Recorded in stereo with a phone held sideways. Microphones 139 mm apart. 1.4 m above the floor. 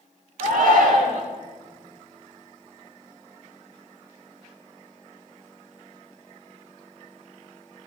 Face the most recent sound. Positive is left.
turn(degrees=-80)